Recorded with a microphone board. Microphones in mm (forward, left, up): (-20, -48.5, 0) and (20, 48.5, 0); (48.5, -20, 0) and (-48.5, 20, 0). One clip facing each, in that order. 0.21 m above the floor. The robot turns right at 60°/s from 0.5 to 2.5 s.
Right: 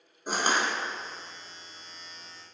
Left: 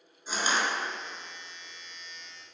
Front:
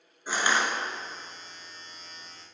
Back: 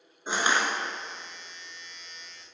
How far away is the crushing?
About 1.0 m.